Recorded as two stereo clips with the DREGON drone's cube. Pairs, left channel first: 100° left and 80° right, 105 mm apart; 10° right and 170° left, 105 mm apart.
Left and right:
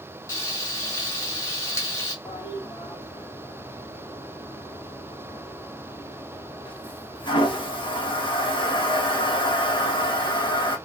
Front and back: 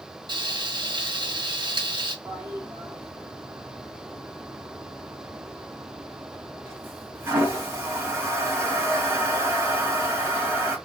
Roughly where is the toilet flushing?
Left.